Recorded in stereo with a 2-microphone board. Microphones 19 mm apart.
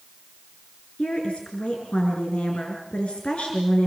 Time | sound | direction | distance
1.0 | a woman speaking | 65° left (ahead or behind) | 5 m